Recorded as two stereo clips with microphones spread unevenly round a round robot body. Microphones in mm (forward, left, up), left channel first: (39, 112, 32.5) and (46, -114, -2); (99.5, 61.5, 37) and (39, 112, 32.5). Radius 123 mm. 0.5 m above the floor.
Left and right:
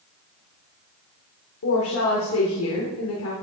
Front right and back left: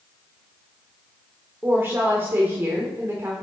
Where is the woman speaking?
85° left, 1.3 m.